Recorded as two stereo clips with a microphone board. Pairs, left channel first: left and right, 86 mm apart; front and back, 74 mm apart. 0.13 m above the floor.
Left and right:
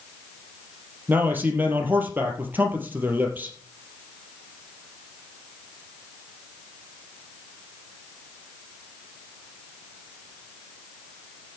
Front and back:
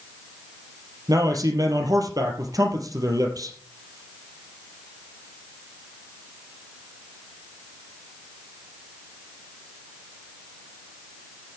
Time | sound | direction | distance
1.1 | a man speaking | 155° right | 3.5 m